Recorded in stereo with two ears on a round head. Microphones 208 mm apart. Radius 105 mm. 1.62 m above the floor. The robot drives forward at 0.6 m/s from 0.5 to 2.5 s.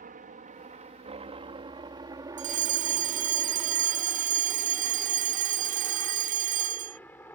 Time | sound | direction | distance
0.0 | a helicopter | 35° right (ahead or behind) | ?
2.4 | a fire alarm | 30° right (ahead or behind) | ?